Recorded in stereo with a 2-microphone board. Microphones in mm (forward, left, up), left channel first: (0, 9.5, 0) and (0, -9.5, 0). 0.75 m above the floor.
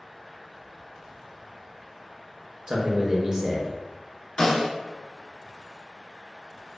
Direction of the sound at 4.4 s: 60° left (ahead or behind).